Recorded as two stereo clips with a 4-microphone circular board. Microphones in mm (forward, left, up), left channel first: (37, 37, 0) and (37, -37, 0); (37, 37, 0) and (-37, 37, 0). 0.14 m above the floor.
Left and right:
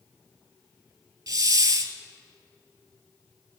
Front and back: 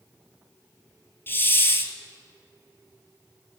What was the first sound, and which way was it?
A hiss, 55° right.